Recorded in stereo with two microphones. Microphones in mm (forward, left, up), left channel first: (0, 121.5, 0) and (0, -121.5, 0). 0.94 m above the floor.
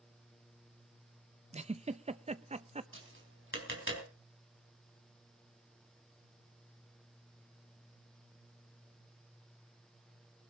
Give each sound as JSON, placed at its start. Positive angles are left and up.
{"t": 1.5, "sound": "a giggle", "side_deg": -25, "distance_m": 0.6}
{"t": 2.9, "sound": "tapping", "side_deg": -55, "distance_m": 4.5}